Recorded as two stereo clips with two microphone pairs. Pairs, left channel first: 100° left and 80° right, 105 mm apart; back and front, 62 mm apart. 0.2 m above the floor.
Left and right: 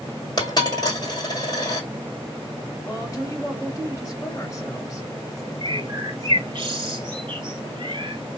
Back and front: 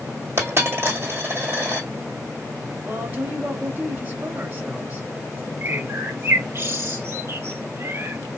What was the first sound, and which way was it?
A dropped coin, 50° left.